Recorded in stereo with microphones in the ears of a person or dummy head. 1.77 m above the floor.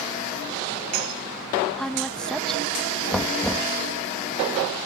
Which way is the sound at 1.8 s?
5° left (ahead or behind).